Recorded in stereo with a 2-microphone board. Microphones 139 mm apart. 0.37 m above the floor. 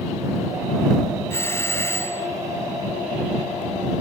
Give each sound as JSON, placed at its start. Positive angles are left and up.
{"t": 1.3, "sound": "a doorbell", "side_deg": 20}